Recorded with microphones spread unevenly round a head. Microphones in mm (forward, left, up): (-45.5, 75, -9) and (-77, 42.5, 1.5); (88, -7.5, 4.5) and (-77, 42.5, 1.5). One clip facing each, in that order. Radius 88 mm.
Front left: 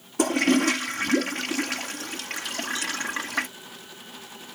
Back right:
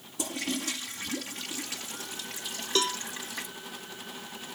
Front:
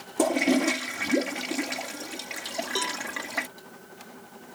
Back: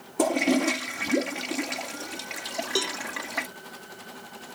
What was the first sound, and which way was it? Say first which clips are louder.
A toilet flushing: front left 13 dB, even; 70° left.